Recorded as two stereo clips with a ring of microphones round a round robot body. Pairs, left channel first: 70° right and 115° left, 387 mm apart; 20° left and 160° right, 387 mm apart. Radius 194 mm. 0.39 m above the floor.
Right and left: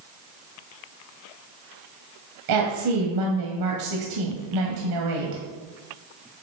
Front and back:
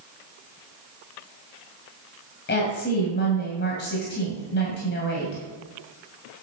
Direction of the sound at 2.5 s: 85° left.